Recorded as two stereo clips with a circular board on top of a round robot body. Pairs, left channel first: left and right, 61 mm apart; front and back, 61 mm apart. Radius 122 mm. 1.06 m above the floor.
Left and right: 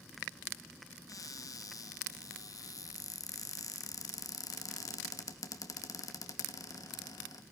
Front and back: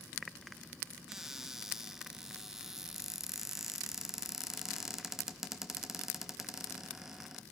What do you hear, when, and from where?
1.1 s a cupboard door: 100° left, 2 m